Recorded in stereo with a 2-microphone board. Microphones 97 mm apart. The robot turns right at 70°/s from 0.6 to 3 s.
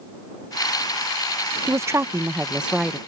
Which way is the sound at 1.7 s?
30° right (ahead or behind).